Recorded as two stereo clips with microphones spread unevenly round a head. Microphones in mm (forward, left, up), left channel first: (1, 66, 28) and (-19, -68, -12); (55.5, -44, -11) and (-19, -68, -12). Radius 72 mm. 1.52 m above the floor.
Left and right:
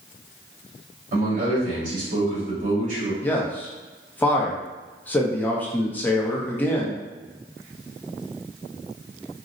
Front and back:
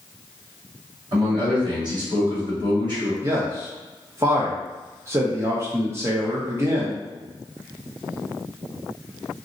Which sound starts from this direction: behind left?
A man speaking, at 3.2 s.